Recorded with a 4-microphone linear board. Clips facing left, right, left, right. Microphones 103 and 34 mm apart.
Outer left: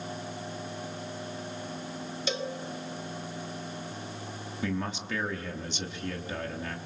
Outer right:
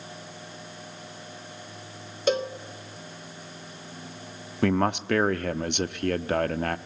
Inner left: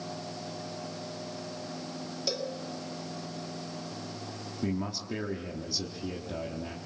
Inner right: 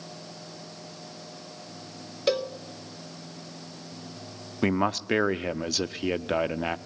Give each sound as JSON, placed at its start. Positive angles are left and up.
{"t": 2.3, "sound": "a cowbell", "side_deg": -50, "distance_m": 1.4}
{"t": 4.6, "sound": "a man speaking", "side_deg": -65, "distance_m": 0.9}